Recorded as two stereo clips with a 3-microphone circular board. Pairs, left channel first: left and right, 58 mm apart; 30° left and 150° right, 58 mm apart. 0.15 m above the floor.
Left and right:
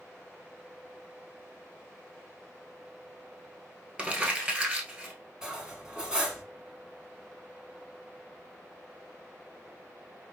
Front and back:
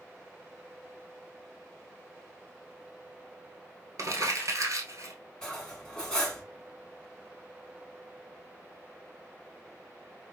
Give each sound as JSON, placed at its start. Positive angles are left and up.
{"t": 4.0, "sound": "crumpling", "azimuth_deg": -155, "distance_m": 1.1}
{"t": 5.4, "sound": "cutlery clinking", "azimuth_deg": -30, "distance_m": 0.9}